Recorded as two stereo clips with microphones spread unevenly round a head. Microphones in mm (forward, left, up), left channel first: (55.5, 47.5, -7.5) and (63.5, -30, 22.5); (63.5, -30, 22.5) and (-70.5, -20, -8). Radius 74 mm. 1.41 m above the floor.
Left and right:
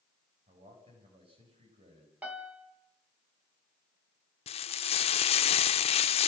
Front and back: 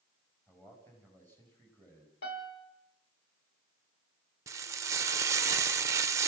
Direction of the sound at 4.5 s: 100° left.